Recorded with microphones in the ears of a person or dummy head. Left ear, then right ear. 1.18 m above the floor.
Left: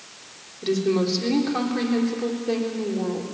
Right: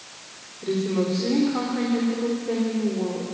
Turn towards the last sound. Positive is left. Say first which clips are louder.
# left 2 dB
turn(degrees=85)